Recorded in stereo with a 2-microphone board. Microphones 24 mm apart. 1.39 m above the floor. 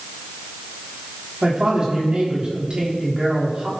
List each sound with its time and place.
1.4 s a woman speaking: 35° right (ahead or behind), 4 m